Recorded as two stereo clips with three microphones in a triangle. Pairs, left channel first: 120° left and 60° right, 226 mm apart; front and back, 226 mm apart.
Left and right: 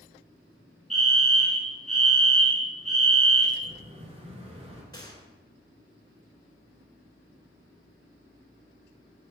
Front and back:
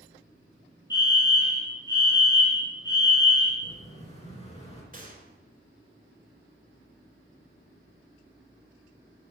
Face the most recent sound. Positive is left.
turn(degrees=180)